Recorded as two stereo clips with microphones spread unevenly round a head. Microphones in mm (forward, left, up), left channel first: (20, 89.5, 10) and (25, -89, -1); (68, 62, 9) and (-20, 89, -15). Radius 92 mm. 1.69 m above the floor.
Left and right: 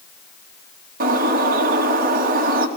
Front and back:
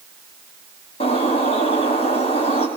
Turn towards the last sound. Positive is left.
turn(degrees=-50)